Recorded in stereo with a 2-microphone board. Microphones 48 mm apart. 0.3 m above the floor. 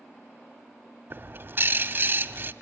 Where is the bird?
45° right (ahead or behind), 0.8 m.